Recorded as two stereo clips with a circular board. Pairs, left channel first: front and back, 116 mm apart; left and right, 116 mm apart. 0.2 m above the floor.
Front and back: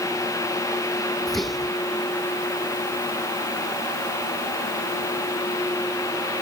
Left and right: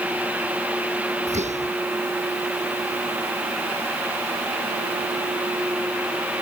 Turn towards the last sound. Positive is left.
turn(degrees=-90)